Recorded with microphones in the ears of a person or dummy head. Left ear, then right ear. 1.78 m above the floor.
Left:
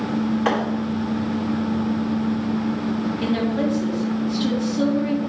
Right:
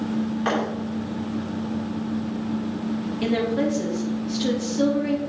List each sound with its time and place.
0.5 s a thud: 15° left (ahead or behind), 2.5 m
3.2 s a woman speaking: 10° right (ahead or behind), 2.5 m